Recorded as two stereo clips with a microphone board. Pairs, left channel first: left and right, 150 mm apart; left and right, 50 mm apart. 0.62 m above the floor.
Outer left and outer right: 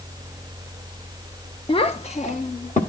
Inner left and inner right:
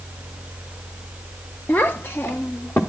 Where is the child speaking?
35° left (ahead or behind), 0.6 m; by 2.8 s 55° left (ahead or behind), 1.3 m.